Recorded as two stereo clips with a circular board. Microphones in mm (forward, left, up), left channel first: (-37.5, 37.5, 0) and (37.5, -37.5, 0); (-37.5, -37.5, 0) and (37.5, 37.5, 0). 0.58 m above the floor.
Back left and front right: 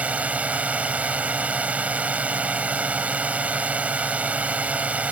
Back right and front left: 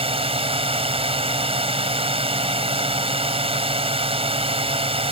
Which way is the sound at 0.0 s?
30° left.